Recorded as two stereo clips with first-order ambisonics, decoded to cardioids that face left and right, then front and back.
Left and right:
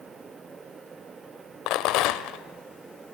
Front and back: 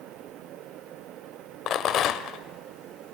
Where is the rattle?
55° left, 1.0 m.